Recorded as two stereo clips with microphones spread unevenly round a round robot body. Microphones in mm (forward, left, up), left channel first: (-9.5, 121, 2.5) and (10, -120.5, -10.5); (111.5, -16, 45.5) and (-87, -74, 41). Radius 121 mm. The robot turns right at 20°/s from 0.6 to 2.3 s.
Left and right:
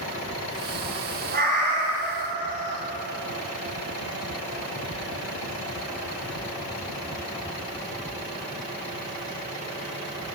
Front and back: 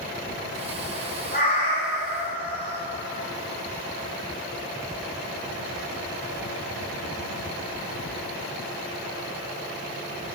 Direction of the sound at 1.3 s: 30° right.